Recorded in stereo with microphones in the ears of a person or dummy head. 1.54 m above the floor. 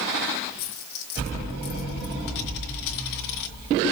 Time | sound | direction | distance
0.6 | a dropped coin | 55° left (ahead or behind) | 2.5 m